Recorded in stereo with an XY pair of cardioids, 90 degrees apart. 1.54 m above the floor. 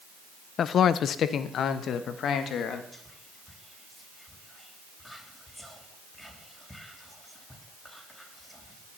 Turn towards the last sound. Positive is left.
turn(degrees=10)